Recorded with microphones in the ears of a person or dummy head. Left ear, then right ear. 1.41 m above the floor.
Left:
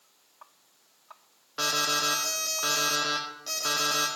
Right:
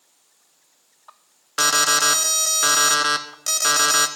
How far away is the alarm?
About 0.8 m.